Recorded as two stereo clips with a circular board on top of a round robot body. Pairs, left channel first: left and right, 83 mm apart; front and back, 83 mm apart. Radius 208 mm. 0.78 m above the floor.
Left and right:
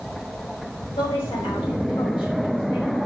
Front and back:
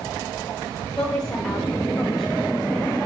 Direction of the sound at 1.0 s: 85° left.